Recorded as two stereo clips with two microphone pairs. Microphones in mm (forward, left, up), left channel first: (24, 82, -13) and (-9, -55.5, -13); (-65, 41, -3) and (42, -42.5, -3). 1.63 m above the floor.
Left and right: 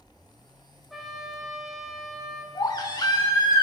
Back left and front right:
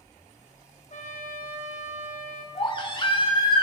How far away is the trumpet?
About 1.7 m.